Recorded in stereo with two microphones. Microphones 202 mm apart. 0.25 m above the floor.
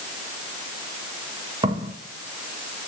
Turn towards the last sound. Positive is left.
turn(degrees=-25)  # may be behind; listen again after turning